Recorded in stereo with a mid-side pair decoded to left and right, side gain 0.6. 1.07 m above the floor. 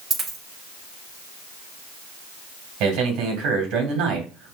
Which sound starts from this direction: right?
A man speaking, at 2.8 s.